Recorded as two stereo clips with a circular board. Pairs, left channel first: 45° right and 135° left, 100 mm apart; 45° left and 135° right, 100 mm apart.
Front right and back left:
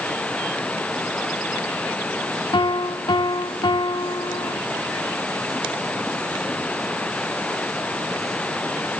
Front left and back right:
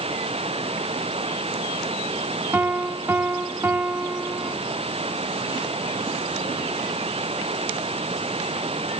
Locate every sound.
0.0 s running water: 120° right
2.5 s a piano: 70° right